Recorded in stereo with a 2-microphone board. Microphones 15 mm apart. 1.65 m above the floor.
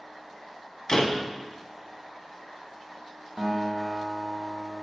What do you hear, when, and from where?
0.9 s a door slam: 40° left (ahead or behind), 1.4 m
3.4 s a guitar: 50° right (ahead or behind), 2.5 m